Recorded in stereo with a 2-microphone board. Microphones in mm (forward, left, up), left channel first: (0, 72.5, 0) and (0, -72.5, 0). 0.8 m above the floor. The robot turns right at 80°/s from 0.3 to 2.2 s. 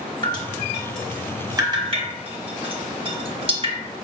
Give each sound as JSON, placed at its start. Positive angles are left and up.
{"t": 0.2, "sound": "dripping", "side_deg": 30, "distance_m": 1.0}